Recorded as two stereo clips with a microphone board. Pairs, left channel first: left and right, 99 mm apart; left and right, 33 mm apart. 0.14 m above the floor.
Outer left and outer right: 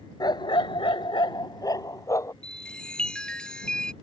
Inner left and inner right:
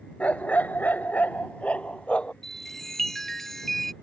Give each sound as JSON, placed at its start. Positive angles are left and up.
{"t": 0.2, "sound": "a dog barking", "side_deg": 45}
{"t": 2.4, "sound": "a chime", "side_deg": 10}